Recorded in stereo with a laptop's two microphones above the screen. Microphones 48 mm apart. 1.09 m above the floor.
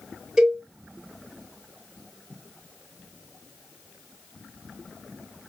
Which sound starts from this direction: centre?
A cowbell, at 0.4 s.